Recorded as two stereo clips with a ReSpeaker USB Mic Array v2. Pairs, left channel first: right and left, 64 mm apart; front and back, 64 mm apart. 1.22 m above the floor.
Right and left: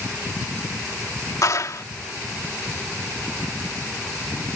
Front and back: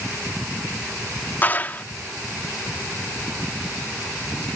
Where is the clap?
60° right.